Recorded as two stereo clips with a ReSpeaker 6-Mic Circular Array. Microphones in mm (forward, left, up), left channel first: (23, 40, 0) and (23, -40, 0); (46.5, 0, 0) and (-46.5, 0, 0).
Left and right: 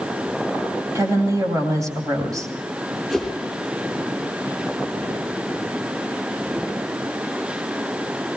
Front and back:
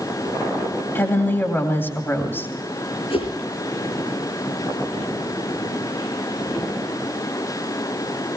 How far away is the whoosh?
About 6 m.